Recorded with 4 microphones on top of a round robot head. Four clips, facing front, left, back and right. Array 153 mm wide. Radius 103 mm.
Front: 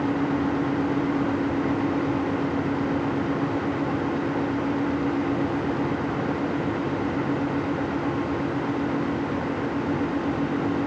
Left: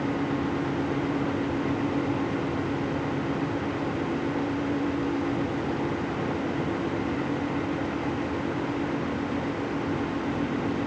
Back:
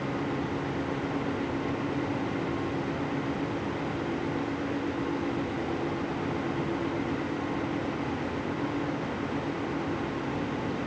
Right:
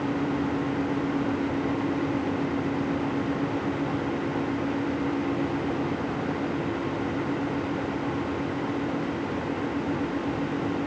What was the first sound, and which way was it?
Only background noise.